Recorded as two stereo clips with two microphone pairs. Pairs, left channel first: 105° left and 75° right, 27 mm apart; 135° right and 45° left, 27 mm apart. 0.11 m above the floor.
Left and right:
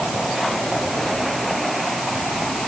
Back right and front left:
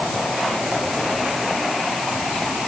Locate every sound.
Only background noise.